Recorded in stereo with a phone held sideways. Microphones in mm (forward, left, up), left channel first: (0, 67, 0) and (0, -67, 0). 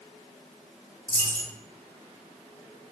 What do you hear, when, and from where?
1.1 s a dropped coin: 10° left (ahead or behind), 1.8 m